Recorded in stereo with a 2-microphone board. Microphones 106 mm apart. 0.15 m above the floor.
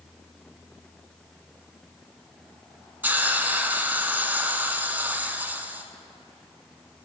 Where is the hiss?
15° right (ahead or behind), 0.7 m.